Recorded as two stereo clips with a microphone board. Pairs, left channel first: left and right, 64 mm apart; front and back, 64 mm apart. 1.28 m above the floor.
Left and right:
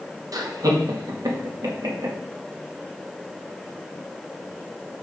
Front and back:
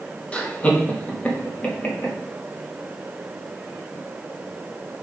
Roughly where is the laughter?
Right.